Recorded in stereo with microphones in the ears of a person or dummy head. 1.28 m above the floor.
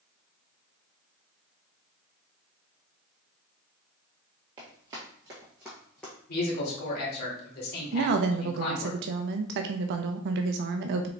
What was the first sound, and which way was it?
Running footsteps, 20° right (ahead or behind).